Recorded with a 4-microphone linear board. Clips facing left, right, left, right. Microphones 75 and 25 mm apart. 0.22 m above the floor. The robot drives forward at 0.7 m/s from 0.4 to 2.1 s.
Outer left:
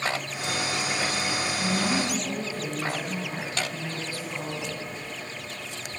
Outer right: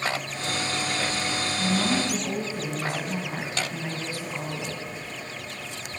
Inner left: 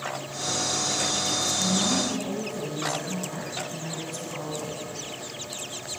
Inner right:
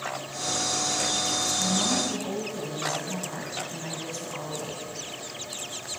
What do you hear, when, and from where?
1.6 s a woman speaking: 20° right (ahead or behind), 2.0 m